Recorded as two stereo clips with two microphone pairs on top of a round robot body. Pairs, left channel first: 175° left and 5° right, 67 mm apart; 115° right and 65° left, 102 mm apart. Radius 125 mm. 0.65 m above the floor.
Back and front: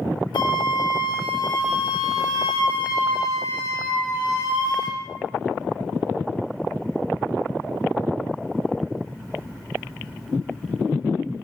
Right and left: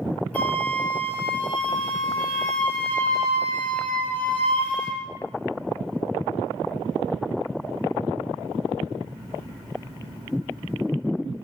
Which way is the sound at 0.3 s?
170° left.